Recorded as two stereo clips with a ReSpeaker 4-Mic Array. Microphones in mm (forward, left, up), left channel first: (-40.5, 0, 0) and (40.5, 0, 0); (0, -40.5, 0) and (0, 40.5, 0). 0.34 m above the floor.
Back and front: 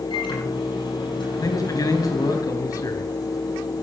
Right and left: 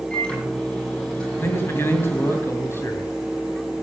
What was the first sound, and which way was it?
A microwave, 165° right.